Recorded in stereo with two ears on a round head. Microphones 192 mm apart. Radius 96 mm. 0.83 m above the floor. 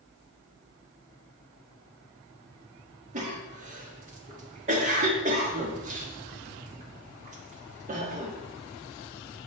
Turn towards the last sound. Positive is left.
turn(degrees=-35)  # may be behind; listen again after turning